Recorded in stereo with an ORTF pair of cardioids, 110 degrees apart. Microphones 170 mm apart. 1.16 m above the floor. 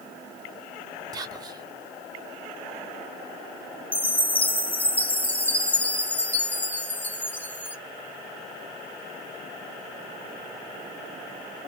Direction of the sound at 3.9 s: 10° left.